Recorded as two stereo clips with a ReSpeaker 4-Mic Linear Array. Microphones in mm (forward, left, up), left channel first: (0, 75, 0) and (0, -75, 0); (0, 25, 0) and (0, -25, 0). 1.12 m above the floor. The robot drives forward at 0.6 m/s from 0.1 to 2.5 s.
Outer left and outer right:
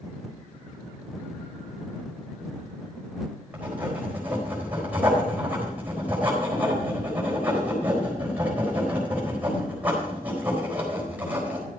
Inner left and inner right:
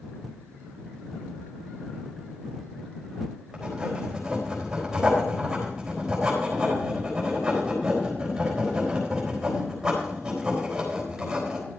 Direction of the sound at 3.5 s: 10° right (ahead or behind).